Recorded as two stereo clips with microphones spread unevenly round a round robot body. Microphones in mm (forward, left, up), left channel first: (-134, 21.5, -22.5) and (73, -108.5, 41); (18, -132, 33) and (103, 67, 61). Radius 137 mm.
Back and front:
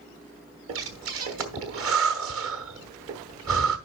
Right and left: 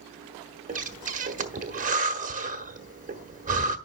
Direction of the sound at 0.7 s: 10° left.